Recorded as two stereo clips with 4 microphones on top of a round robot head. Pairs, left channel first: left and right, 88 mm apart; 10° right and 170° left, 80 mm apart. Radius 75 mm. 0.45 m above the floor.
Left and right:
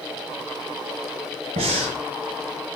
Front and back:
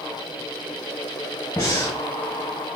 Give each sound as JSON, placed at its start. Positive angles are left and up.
{"t": 1.6, "sound": "breathing", "azimuth_deg": -80, "distance_m": 0.8}